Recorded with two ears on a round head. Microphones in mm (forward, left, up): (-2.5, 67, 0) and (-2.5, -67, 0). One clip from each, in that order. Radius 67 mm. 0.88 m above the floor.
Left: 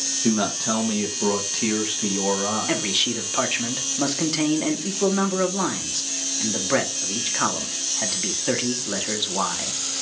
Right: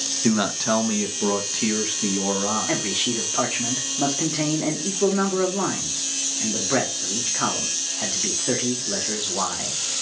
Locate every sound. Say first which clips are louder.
0.2 s a man speaking: right 2 dB; 30° right (ahead or behind), 0.9 m; by 2.9 s 20° left (ahead or behind), 1.6 m
2.7 s a man speaking: left 1 dB; 70° left (ahead or behind), 1.5 m